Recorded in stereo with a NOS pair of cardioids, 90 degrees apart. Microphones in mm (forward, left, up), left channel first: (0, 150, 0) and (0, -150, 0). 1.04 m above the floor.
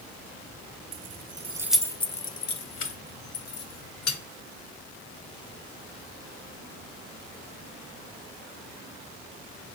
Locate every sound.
0.9 s keys jangling: 50° right, 0.6 m; by 4.2 s 60° left, 1.5 m